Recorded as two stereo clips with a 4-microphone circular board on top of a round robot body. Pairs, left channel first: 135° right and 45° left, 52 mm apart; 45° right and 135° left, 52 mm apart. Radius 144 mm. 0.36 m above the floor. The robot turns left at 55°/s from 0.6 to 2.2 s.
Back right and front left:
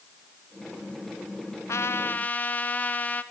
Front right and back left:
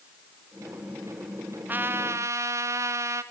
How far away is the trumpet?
About 0.9 m.